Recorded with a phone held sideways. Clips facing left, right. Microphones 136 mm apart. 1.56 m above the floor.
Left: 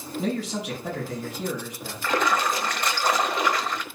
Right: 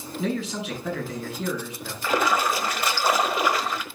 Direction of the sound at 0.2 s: 45° left (ahead or behind).